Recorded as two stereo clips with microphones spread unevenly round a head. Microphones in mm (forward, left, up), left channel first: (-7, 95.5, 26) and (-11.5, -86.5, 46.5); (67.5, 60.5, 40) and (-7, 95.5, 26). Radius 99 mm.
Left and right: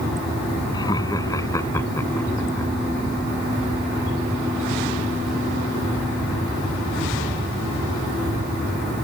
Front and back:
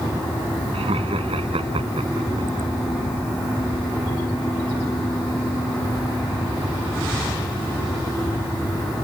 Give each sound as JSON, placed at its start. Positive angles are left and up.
{"t": 0.7, "sound": "laughter", "azimuth_deg": 160}